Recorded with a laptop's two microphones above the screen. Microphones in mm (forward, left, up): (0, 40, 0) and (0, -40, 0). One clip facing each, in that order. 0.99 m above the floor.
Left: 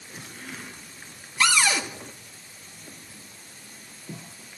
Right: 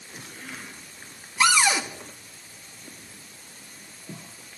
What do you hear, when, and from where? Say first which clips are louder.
1.4 s a cupboard door: right 2 dB; 15° right (ahead or behind), 0.8 m